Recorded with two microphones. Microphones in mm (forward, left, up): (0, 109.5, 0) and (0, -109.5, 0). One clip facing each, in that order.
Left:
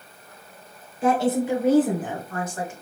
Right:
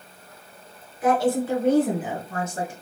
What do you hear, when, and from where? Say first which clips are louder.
1.0 s a woman speaking: even; 30° left (ahead or behind), 1.4 m; by 2.7 s 35° right (ahead or behind), 1.2 m